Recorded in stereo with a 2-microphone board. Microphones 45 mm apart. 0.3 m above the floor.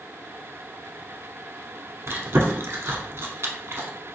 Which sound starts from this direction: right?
Chewing, at 2.1 s.